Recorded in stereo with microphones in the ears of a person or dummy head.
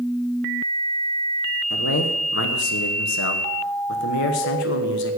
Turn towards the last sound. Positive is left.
turn(degrees=60)  # may be behind; listen again after turning